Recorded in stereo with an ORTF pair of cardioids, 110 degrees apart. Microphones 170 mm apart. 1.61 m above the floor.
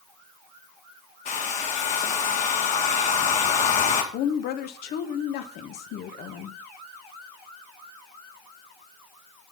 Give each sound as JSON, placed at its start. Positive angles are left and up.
{"t": 1.2, "sound": "a hair dryer", "azimuth_deg": 50, "distance_m": 2.5}
{"t": 4.1, "sound": "a woman speaking", "azimuth_deg": 70, "distance_m": 1.5}